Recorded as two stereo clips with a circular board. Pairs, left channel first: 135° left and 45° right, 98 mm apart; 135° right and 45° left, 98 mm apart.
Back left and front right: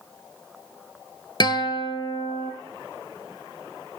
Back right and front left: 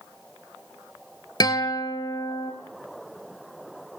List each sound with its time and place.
1.4 s a guitar: 175° left, 0.9 m